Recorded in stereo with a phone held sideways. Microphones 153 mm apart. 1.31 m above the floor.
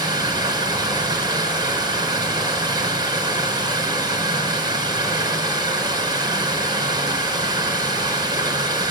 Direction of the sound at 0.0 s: 25° right (ahead or behind).